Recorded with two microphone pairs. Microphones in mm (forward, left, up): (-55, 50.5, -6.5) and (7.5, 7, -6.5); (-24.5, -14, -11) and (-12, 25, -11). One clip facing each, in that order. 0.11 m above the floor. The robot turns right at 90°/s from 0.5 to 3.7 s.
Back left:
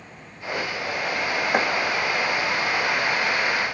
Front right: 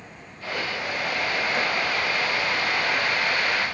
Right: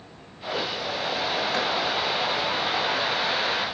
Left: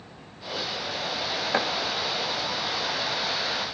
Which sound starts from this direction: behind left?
Chopping, at 1.5 s.